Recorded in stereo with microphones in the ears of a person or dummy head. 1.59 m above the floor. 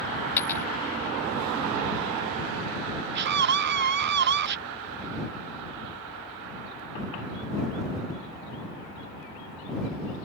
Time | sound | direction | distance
0.4 | a dropped coin | 10° left (ahead or behind) | ?
3.1 | a scream | 55° right (ahead or behind) | ?